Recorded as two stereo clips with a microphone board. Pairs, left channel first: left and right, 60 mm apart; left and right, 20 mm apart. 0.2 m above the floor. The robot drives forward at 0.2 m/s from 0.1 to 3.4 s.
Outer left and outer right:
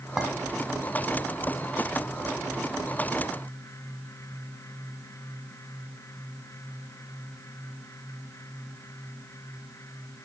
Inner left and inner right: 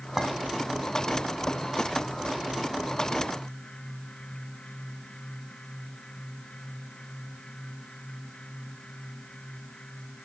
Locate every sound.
0.2 s a clink: 5° right (ahead or behind), 1.2 m